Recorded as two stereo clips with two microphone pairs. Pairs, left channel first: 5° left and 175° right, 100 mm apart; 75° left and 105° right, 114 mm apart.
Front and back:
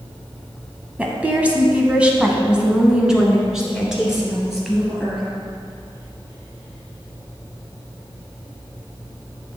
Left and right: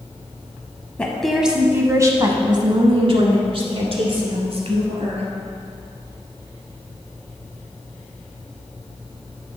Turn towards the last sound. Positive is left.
turn(degrees=-85)